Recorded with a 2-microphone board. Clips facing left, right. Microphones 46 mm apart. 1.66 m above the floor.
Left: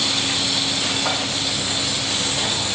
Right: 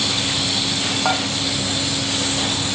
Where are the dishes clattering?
30° right (ahead or behind), 1.8 m.